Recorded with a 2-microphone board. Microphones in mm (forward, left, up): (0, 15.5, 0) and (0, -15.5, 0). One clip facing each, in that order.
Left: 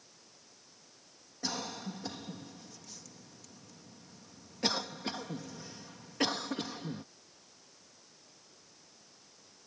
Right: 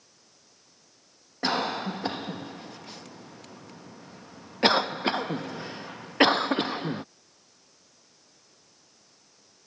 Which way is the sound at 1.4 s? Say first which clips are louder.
Right 11 dB; 45° right (ahead or behind).